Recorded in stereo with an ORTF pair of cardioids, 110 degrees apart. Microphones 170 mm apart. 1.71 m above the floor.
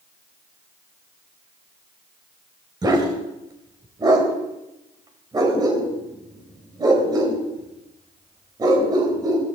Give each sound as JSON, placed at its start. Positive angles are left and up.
{"t": 2.8, "sound": "a dog barking", "azimuth_deg": -25, "distance_m": 3.5}